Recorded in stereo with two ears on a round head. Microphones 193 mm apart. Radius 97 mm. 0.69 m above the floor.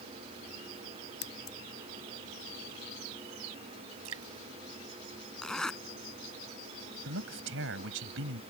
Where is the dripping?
75° right (ahead or behind).